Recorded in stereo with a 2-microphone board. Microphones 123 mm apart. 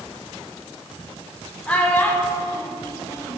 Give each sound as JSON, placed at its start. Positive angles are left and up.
{"t": 1.7, "sound": "a child speaking", "side_deg": 15, "distance_m": 0.9}